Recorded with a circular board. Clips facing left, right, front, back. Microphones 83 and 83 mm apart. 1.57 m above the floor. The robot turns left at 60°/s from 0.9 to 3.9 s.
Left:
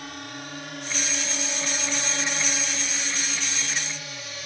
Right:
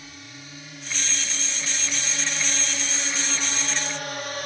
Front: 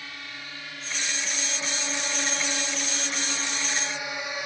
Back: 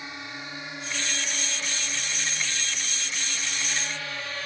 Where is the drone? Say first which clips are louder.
Left 7 dB, back 3 dB; 110° left; by 4.5 s 70° right.